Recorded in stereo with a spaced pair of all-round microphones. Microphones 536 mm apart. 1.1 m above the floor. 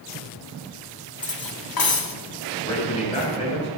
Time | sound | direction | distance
1.2 | cutlery clinking | 40° left (ahead or behind) | 1.1 m
2.5 | a man speaking | 10° left (ahead or behind) | 6.5 m